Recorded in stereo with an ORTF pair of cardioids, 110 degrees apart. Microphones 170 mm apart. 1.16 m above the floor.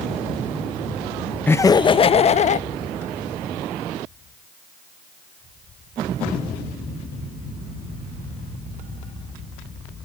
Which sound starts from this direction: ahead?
Laughter, at 1.5 s.